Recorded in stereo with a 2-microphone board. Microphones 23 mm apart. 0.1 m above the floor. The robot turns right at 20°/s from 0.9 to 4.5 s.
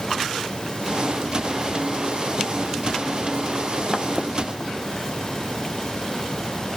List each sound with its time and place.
Only background noise.